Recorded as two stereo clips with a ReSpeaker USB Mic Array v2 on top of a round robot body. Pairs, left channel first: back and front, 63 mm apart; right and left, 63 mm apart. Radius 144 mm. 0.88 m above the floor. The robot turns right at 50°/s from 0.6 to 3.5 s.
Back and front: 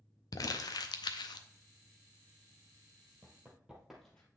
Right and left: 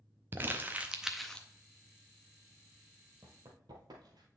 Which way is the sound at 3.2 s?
40° left.